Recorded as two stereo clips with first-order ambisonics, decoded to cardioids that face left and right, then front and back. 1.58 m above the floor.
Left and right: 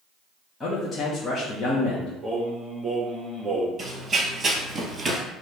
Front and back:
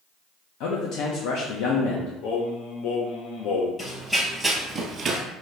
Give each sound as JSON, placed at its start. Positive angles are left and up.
{"t": 0.6, "sound": "a man speaking", "azimuth_deg": 20, "distance_m": 1.2}
{"t": 2.2, "sound": "singing", "azimuth_deg": -15, "distance_m": 1.5}
{"t": 3.8, "sound": "running footsteps", "azimuth_deg": -50, "distance_m": 1.7}